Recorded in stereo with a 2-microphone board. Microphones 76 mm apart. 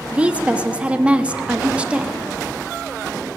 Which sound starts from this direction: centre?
A woman speaking, at 0.1 s.